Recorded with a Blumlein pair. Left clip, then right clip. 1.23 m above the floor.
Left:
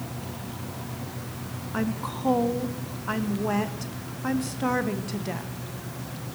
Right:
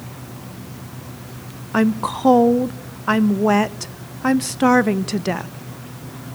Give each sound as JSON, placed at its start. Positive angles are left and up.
{"t": 1.7, "sound": "a woman speaking", "azimuth_deg": -30, "distance_m": 0.6}